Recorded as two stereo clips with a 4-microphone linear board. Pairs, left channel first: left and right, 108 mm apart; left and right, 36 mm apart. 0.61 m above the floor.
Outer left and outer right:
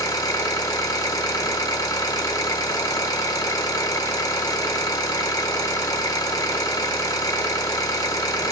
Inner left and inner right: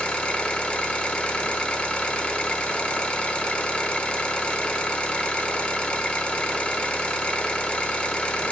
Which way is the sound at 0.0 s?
35° left (ahead or behind).